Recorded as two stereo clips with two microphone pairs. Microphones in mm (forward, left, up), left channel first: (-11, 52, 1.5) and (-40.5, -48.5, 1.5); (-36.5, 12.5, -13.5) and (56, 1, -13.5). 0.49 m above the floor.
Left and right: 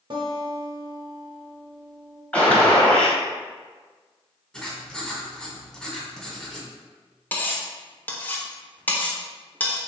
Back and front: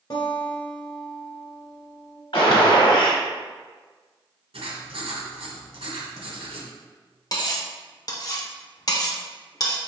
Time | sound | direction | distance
0.1 | a guitar | 150° right | 1.3 m
2.3 | a gunshot | 150° left | 1.1 m
4.5 | writing | 10° right | 1.1 m
7.3 | cutlery clinking | 140° left | 0.8 m